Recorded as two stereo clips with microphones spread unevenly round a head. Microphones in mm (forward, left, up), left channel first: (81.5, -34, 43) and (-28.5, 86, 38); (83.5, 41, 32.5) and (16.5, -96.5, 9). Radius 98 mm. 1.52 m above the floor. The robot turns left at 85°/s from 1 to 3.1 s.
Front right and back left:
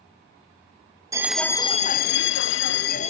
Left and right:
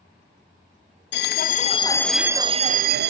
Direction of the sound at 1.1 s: 60° left.